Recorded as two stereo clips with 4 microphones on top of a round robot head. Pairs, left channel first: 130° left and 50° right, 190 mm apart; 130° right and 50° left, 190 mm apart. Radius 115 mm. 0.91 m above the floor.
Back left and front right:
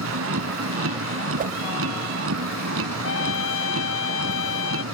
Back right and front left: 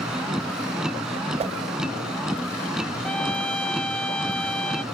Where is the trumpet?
145° left.